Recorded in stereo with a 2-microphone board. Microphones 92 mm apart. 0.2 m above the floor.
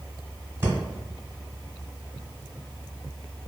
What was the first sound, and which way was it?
Breathing, 25° right (ahead or behind).